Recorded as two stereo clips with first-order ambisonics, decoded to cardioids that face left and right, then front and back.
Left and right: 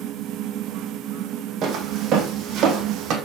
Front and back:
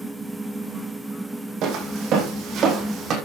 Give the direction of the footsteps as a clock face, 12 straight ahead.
5 o'clock.